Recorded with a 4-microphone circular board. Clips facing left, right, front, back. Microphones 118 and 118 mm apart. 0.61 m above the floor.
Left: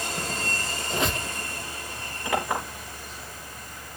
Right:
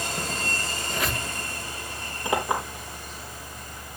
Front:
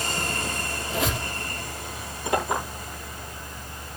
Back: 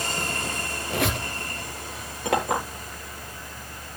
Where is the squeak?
155° left, 3 m.